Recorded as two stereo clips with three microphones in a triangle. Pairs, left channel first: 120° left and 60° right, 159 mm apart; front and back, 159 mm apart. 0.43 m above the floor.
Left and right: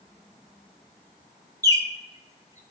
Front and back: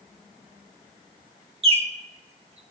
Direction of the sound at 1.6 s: 130° right.